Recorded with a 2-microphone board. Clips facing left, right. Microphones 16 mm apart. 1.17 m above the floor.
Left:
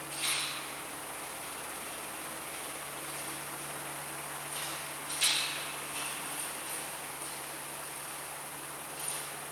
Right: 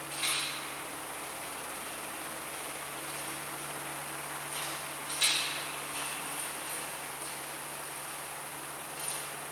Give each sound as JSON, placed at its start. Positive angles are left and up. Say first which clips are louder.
{"t": 0.1, "sound": "a rattle", "louder": "right 1 dB", "side_deg": -35, "distance_m": 1.8}